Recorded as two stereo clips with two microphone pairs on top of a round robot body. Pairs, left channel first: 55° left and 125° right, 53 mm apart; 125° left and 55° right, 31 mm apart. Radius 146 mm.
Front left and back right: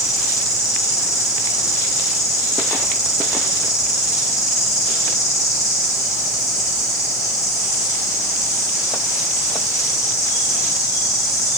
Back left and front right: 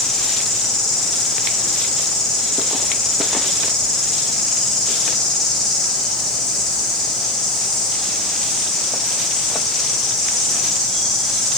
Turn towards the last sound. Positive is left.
turn(degrees=45)